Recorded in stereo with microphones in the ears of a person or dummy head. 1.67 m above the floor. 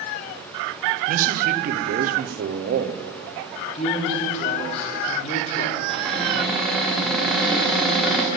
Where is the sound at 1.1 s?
50° right (ahead or behind), 0.9 m.